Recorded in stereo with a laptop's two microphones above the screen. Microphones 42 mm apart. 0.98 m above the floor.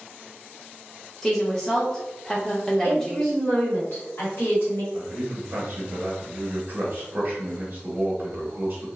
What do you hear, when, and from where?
1.2 s a woman speaking: 10° left (ahead or behind), 1.0 m
2.8 s a woman speaking: 65° left (ahead or behind), 1.7 m
4.9 s a man speaking: 35° right (ahead or behind), 0.9 m